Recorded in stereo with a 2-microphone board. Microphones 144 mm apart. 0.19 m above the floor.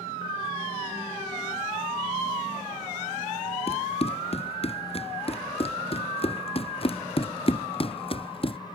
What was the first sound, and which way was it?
Running footsteps, 45° left (ahead or behind).